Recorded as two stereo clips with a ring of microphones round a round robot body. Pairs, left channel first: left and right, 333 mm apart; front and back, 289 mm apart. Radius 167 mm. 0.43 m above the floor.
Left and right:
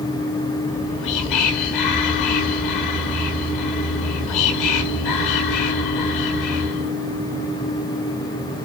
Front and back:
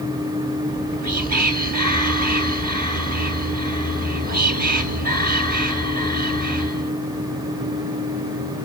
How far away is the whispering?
About 2.5 m.